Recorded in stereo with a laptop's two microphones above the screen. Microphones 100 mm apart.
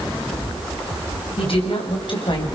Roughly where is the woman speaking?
Left.